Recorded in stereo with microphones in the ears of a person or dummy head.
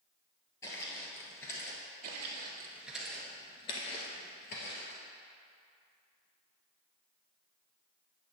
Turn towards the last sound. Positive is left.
turn(degrees=60)  # may be behind; listen again after turning